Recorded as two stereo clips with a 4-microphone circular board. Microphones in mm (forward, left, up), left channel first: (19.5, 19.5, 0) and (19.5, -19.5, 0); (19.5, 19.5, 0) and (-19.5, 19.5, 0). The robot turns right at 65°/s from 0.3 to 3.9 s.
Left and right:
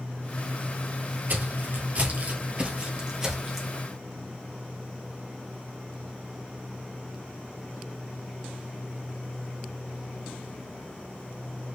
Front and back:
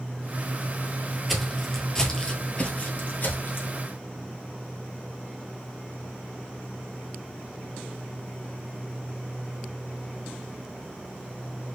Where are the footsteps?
90° right, 1.2 m; by 3.7 s straight ahead, 1.5 m.